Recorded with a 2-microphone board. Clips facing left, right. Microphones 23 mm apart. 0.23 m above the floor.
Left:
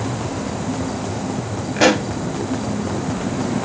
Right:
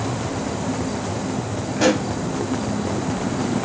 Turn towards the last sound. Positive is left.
turn(degrees=30)  # may be behind; listen again after turning